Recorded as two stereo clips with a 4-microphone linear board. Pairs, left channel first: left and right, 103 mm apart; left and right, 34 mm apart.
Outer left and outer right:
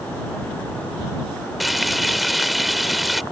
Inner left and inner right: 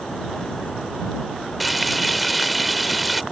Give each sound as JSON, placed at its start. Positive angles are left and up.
{"t": 1.6, "sound": "frying", "side_deg": 0}